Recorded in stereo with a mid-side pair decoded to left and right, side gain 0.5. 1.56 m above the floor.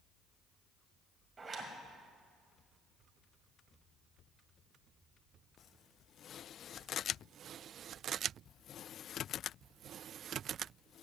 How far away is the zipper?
About 1.8 m.